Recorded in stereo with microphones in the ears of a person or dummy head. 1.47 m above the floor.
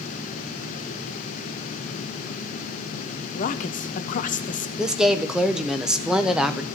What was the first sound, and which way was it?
A woman speaking, 45° left (ahead or behind).